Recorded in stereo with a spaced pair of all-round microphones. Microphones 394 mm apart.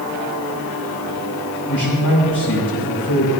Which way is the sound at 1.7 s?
65° left (ahead or behind).